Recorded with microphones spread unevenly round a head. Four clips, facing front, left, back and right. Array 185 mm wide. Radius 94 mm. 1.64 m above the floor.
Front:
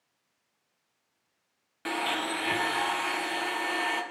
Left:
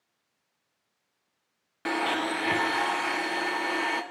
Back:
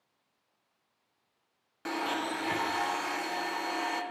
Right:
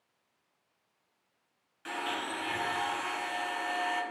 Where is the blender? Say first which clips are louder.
Left 8 dB, front 2 dB; 85° left, 1.2 m.